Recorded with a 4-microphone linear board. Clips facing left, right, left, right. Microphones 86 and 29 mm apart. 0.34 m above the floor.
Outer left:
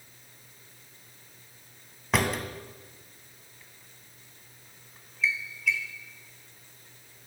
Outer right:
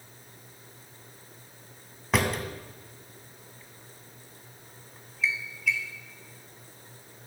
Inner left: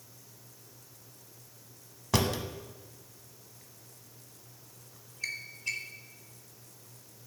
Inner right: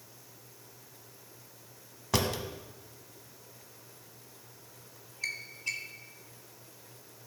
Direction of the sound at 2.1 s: Centre (ahead or behind).